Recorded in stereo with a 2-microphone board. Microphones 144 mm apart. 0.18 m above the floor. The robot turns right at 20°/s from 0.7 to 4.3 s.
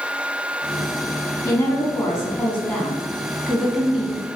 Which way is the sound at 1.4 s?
135° left.